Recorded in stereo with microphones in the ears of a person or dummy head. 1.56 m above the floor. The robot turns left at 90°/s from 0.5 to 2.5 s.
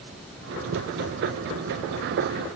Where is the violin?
I don't hear a violin.